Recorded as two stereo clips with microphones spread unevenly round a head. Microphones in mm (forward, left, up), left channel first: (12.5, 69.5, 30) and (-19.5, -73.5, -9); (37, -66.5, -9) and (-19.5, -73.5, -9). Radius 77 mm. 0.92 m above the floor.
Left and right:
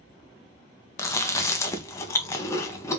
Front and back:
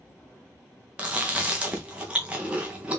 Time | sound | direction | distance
1.0 | chewing | 155° left | 0.9 m